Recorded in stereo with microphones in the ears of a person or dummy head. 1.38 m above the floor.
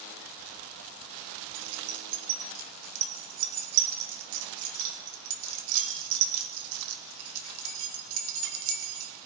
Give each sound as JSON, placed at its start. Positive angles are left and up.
{"t": 1.6, "sound": "keys jangling", "side_deg": -75, "distance_m": 1.5}